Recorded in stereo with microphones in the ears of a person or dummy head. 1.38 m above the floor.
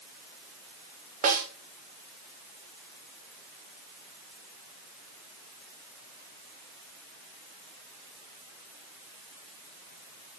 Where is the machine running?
I don't hear a machine running.